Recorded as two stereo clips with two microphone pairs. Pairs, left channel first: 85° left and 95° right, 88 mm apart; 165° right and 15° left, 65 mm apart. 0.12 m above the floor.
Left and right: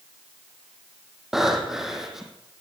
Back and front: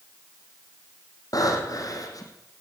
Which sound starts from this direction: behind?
Breathing, at 1.3 s.